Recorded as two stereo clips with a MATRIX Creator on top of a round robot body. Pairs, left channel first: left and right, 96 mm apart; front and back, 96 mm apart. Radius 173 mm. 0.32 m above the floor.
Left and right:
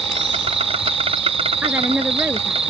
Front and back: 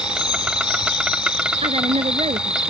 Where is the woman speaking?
165° right.